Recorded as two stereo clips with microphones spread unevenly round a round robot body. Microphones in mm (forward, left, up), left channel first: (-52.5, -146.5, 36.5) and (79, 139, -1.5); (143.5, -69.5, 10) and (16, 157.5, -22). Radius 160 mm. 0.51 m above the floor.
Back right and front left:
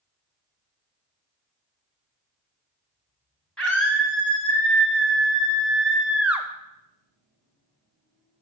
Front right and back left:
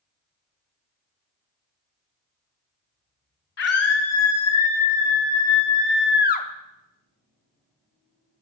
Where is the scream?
25° right, 3 m; by 6.5 s 5° right, 0.8 m.